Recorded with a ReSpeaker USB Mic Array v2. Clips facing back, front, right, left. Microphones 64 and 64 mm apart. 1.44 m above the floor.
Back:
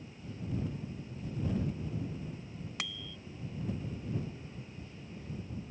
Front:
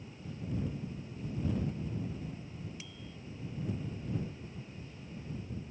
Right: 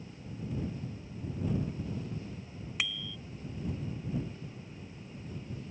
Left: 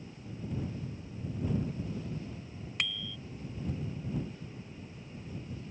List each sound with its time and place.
2.8 s a bicycle bell: 175° right